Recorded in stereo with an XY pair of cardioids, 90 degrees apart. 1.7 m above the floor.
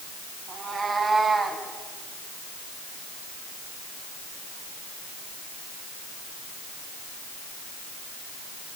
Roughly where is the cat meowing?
Ahead right.